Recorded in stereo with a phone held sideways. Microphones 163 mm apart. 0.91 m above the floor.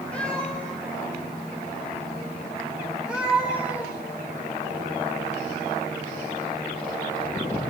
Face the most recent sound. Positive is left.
turn(degrees=-5)  # may be behind; listen again after turning